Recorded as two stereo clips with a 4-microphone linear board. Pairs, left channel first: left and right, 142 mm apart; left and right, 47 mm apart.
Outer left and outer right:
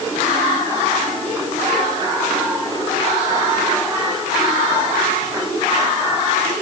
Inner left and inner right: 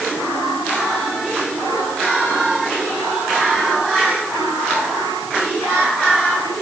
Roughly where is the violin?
No violin in this recording.